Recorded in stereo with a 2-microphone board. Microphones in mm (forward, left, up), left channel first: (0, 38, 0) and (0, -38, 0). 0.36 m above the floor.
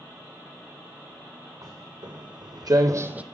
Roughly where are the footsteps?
Right.